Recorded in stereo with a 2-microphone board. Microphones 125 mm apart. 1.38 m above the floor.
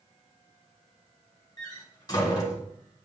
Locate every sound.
1.6 s a door slam: 30° left (ahead or behind), 3 m